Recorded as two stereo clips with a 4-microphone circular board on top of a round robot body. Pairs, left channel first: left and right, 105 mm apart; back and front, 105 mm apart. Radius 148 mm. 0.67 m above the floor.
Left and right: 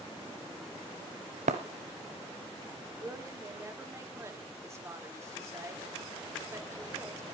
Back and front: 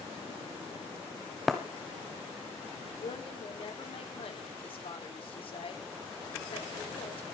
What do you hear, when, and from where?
1.5 s breaking glass: 90° right, 0.7 m
3.0 s a woman speaking: 150° right, 3 m